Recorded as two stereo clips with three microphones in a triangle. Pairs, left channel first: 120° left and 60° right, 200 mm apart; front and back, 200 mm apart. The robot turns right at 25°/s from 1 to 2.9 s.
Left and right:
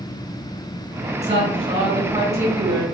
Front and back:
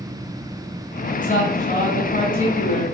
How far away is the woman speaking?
About 1.8 m.